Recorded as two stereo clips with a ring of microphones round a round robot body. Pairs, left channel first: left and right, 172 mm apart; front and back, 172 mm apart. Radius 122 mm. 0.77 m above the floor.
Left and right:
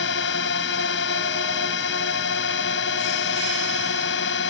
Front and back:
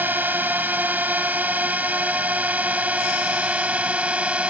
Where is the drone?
100° left; by 4.5 s 95° left.